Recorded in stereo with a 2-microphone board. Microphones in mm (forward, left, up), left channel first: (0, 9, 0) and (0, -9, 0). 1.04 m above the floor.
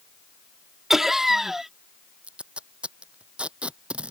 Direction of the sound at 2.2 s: 80° right.